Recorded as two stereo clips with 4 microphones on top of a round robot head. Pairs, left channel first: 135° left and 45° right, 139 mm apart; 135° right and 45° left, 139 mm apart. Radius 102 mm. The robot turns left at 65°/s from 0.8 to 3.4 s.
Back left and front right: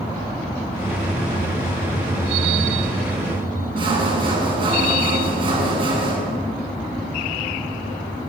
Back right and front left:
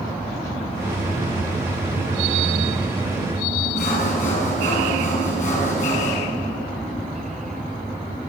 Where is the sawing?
100° right, 9 m.